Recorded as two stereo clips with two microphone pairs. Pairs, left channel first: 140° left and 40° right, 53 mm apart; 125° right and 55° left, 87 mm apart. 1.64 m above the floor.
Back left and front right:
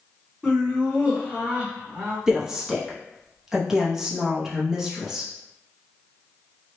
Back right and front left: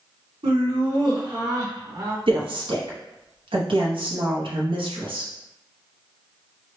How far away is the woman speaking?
About 0.9 m.